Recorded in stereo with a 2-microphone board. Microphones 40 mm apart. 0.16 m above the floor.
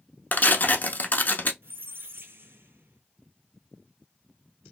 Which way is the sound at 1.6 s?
75° right (ahead or behind).